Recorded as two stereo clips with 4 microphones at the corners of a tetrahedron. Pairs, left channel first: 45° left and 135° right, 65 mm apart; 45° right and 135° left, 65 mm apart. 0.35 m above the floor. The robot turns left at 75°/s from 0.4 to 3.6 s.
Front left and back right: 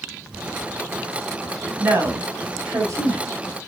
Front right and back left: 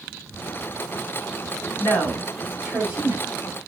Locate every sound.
1.8 s a woman speaking: 80° right, 3 m; by 3.4 s 165° left, 3 m